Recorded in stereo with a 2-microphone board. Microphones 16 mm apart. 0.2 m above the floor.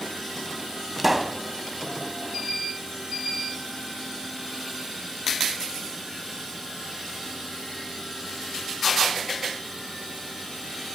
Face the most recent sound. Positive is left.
turn(degrees=-10)  # may be behind; listen again after turning